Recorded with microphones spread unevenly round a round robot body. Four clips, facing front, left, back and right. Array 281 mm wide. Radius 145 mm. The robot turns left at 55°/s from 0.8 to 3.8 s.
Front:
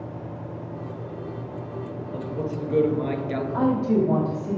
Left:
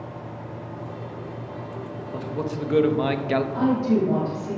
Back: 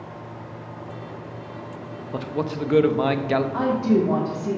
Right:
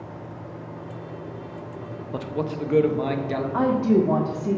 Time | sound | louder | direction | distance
2.1 | a man speaking | right 1 dB, back 4 dB | 150° right | 0.7 m
3.5 | a woman speaking | right 4 dB, front 2 dB | 120° right | 1.7 m